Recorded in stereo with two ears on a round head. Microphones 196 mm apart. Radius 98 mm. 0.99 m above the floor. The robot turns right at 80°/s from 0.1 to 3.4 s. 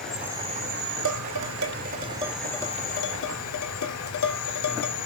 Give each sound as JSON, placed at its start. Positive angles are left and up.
{"t": 0.0, "sound": "an insect", "azimuth_deg": 175, "distance_m": 4.5}
{"t": 1.1, "sound": "dishes clattering", "side_deg": -65, "distance_m": 2.5}